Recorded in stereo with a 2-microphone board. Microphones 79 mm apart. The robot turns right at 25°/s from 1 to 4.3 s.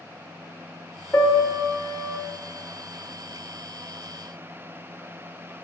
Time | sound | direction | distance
1.1 | a piano | 30° left (ahead or behind) | 0.7 m